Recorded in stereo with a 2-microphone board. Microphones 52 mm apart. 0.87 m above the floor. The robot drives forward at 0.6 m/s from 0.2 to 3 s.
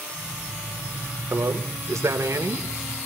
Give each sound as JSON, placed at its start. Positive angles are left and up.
{"t": 1.3, "sound": "a man speaking", "side_deg": -70, "distance_m": 3.5}